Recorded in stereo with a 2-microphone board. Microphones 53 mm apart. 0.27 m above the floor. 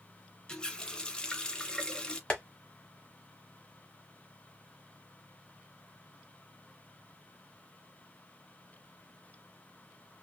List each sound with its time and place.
0.5 s a running tap: 20° left (ahead or behind), 0.6 m
2.3 s tapping: 25° left (ahead or behind), 1.3 m